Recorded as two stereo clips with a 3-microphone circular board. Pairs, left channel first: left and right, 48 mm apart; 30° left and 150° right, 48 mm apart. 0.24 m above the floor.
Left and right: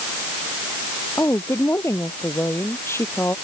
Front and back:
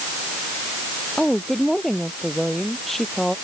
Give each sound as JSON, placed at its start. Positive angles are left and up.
{"t": 1.2, "sound": "a woman speaking", "azimuth_deg": 115}